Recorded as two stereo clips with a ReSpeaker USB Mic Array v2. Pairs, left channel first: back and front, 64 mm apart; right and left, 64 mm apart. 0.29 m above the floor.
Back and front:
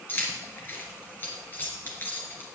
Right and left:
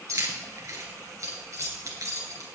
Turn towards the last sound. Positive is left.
turn(degrees=125)